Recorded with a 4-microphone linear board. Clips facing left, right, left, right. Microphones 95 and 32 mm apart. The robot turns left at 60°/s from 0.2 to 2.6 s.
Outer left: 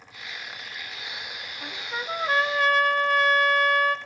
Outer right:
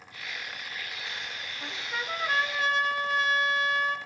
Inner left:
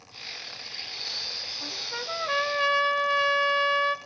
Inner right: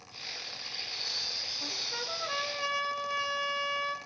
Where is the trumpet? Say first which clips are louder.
Outer left 2 dB, inner left 3 dB; 175° left, 1.1 m; by 4.0 s 115° left, 1.1 m.